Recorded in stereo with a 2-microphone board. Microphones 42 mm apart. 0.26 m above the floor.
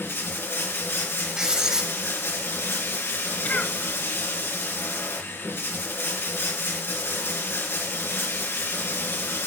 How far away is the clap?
I don't hear a clap.